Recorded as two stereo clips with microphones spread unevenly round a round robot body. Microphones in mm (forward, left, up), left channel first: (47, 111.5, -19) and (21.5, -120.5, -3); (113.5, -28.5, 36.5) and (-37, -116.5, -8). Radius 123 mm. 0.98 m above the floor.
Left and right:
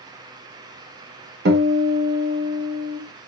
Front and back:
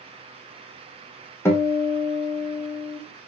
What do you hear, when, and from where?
1.4 s a guitar: 50° right, 1.3 m